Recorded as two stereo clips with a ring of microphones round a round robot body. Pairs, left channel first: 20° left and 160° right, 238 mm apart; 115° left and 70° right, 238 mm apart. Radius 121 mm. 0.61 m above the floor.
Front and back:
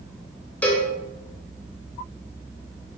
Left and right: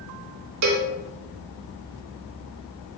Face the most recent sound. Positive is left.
turn(degrees=-60)